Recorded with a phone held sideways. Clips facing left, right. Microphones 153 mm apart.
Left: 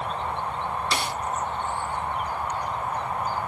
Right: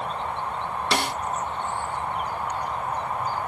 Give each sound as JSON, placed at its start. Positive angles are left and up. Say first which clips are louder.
{"t": 0.9, "sound": "a snare drum", "louder": "right 3 dB", "side_deg": -75}